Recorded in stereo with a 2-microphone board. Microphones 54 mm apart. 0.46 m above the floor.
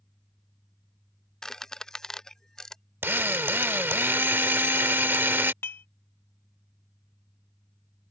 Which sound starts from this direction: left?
Dishes clattering, at 5.6 s.